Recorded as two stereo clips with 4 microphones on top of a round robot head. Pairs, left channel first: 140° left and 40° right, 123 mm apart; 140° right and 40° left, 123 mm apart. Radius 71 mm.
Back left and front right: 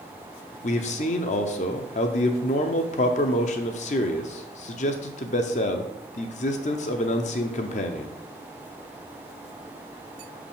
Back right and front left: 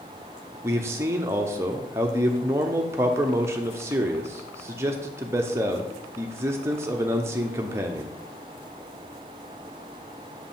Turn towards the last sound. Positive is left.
turn(degrees=110)